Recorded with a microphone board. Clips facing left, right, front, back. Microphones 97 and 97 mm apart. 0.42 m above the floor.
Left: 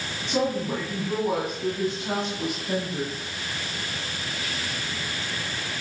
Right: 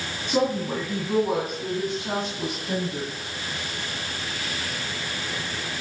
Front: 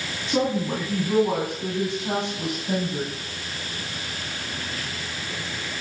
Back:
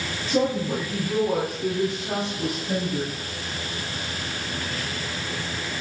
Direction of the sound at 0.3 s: 10° right.